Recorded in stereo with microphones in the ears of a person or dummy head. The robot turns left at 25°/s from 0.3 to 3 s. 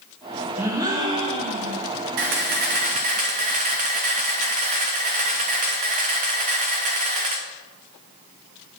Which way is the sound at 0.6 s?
15° right.